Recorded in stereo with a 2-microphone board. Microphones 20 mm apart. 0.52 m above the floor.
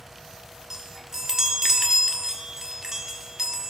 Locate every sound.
0.7 s a chime: 25° right (ahead or behind), 1.3 m